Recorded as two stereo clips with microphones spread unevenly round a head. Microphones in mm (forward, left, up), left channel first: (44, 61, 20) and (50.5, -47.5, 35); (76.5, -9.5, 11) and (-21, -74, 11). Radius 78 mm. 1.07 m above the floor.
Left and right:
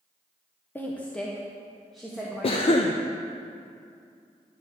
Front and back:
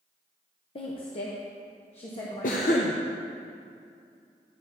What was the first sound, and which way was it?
A woman speaking, 35° left.